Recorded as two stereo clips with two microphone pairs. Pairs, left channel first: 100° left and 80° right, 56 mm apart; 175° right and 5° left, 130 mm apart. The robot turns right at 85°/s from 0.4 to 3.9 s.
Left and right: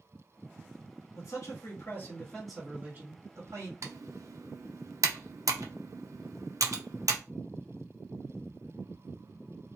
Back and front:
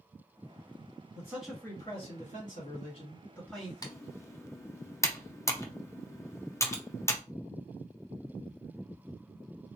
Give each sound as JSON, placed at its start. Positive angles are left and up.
{"t": 1.1, "sound": "a man speaking", "azimuth_deg": 70, "distance_m": 1.9}
{"t": 3.8, "sound": "typing on a keyboard", "azimuth_deg": -115, "distance_m": 0.6}